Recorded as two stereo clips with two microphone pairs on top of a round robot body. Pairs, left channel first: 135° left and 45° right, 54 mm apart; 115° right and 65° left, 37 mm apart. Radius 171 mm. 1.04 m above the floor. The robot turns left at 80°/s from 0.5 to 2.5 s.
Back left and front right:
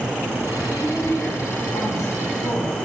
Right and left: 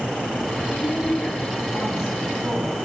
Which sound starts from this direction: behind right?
A woman speaking, at 0.7 s.